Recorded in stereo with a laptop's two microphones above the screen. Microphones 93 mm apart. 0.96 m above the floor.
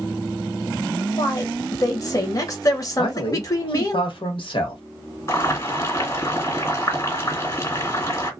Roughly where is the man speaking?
Left.